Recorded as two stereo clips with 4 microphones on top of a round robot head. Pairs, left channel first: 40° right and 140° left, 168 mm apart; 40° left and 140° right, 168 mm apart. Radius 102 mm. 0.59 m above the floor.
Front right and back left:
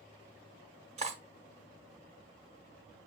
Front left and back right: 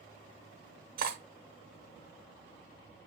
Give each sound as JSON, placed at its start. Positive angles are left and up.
{"t": 1.0, "sound": "cutlery clinking", "azimuth_deg": -170, "distance_m": 0.9}